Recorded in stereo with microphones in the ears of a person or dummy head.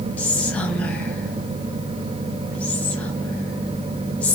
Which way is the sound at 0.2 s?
10° left (ahead or behind).